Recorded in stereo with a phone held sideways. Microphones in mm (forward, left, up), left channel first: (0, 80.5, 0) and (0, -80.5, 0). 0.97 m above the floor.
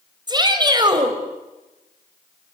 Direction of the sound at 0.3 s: 25° right (ahead or behind).